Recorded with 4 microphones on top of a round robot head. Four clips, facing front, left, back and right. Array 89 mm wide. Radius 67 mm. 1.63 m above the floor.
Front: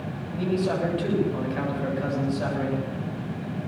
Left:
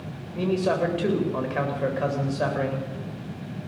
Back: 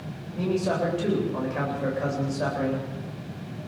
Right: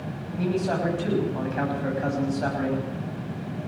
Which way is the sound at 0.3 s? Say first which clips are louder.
Left 2 dB, even; 105° left.